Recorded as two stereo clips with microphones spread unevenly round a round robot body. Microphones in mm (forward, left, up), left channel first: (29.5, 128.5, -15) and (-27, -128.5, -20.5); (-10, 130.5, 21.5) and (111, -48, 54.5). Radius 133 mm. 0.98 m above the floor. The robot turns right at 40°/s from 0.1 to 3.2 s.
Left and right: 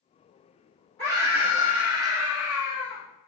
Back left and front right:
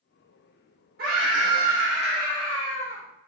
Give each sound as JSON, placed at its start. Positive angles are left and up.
{"t": 1.0, "sound": "a scream", "azimuth_deg": -10, "distance_m": 1.1}